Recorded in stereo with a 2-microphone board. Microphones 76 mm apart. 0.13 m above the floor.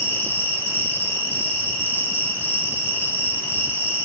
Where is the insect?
30° left (ahead or behind), 5 m.